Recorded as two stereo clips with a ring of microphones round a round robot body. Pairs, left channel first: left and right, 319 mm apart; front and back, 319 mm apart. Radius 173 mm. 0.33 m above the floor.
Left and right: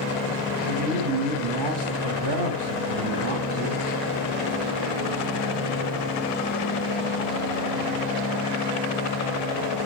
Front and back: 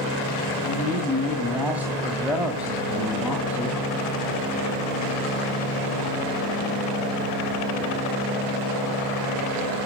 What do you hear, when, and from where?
0.6 s a man speaking: 95° right, 2.5 m